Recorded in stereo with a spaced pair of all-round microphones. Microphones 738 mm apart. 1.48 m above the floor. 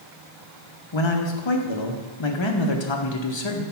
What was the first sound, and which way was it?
A man speaking, 40° left (ahead or behind).